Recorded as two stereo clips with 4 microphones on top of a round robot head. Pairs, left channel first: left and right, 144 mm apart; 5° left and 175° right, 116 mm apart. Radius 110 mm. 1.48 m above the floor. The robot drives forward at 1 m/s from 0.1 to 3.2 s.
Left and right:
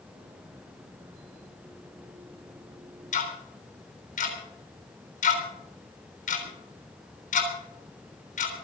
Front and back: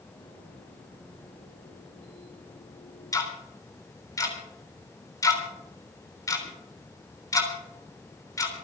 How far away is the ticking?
About 3.5 m.